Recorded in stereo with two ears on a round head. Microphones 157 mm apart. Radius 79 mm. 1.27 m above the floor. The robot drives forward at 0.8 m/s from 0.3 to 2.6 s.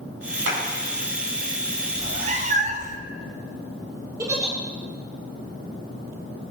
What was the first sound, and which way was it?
A clap, 75° right (ahead or behind).